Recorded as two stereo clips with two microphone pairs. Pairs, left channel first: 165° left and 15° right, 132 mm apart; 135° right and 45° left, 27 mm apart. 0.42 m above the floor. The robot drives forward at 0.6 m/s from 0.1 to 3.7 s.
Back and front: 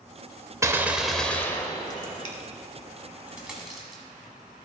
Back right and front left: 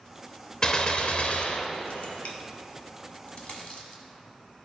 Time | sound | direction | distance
0.6 | a gunshot | 85° right | 0.7 m
3.3 | a dropped coin | 100° right | 1.5 m